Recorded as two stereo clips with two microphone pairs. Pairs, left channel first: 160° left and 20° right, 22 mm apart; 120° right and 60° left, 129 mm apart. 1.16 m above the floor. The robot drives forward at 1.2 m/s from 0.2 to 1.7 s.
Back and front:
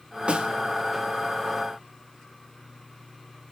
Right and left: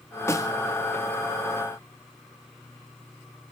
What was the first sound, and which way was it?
A snare drum, 50° right.